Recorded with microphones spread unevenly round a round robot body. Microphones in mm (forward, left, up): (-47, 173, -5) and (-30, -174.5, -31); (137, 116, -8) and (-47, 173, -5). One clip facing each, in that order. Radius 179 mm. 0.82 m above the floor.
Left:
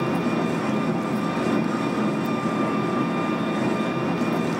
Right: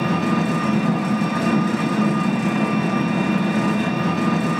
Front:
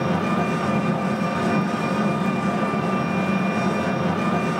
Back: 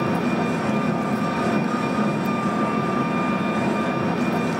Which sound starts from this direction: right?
An engine running, at 0.0 s.